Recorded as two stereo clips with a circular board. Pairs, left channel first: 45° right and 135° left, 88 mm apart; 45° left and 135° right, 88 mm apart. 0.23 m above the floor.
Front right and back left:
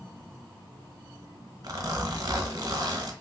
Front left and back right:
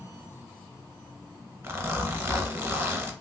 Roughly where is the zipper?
Behind.